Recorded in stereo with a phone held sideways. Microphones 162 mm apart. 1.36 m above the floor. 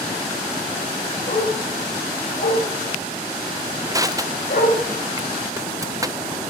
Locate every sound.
1.3 s a dog barking: 60° left (ahead or behind), 9 m; by 4.8 s 85° left, 9.5 m
3.9 s crushing: 20° right (ahead or behind), 0.5 m